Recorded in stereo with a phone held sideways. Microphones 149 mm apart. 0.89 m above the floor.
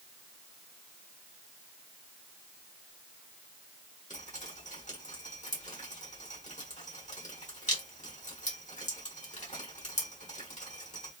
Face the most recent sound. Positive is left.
turn(degrees=55)  # may be behind; listen again after turning